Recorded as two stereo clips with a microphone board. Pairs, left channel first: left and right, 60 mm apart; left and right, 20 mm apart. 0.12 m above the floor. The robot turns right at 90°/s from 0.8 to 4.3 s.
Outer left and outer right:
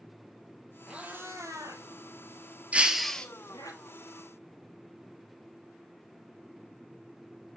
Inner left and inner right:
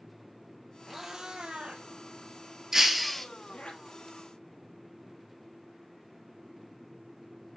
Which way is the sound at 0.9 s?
10° right (ahead or behind).